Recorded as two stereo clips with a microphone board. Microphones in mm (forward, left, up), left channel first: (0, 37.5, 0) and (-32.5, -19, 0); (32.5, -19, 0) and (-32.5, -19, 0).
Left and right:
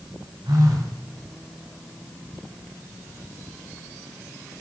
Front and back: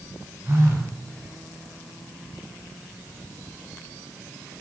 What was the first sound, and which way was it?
A phone buzzing, 120° right.